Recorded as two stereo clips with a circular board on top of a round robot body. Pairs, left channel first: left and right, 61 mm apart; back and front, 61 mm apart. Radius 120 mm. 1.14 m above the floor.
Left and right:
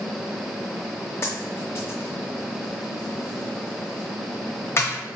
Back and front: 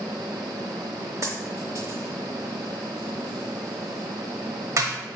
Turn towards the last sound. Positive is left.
turn(degrees=35)